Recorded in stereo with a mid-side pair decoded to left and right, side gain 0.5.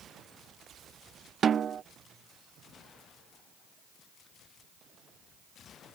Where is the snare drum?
45° right.